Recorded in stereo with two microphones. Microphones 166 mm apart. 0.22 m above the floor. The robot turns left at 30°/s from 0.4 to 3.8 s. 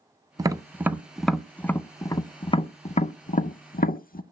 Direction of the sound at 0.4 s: 25° right (ahead or behind).